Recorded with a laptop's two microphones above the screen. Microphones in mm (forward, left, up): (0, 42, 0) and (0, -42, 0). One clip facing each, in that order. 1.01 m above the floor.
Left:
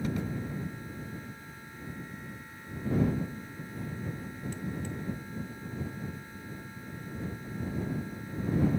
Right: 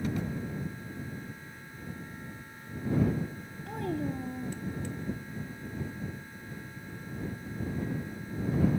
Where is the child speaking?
80° right.